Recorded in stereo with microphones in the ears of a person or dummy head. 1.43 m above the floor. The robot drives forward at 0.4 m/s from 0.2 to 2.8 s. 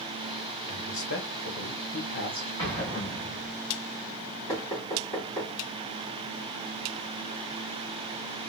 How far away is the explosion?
About 1.7 m.